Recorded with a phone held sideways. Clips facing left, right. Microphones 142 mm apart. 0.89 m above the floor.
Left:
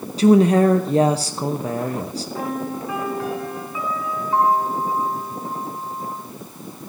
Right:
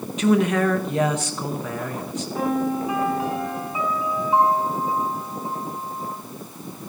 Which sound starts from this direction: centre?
A piano, at 2.4 s.